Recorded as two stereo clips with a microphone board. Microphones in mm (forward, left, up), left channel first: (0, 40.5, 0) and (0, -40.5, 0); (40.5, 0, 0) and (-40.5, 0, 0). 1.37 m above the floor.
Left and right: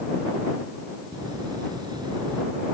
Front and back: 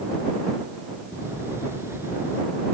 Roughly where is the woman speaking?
No woman speaking in this recording.